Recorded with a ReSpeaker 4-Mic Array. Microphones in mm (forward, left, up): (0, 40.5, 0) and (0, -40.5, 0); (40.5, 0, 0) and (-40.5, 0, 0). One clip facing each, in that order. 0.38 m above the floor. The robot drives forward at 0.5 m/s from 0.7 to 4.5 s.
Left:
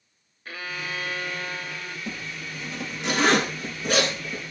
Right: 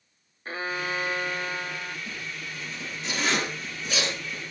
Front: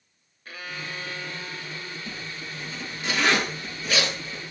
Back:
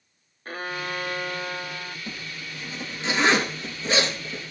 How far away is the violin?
About 0.6 m.